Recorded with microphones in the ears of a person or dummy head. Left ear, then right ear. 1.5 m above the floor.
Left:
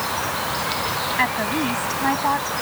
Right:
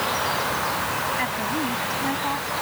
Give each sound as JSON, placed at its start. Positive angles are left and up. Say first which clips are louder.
{"t": 1.2, "sound": "a woman speaking", "louder": "left 4 dB", "side_deg": 30}